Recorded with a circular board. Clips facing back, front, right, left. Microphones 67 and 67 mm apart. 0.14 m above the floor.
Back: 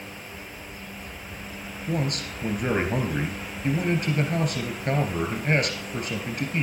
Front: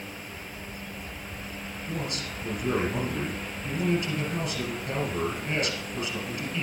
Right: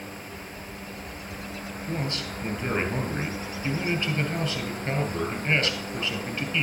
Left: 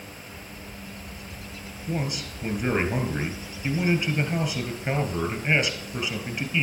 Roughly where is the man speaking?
Behind.